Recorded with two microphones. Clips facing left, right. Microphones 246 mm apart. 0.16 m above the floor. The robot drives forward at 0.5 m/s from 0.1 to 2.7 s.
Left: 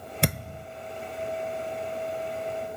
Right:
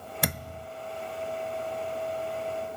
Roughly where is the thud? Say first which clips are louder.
Left 5 dB; left.